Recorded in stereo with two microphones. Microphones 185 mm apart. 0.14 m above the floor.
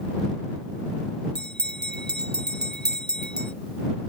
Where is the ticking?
I don't hear ticking.